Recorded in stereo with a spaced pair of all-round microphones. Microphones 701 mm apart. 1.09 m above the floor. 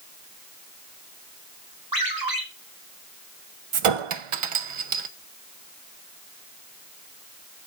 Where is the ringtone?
30° right (ahead or behind), 2.5 m.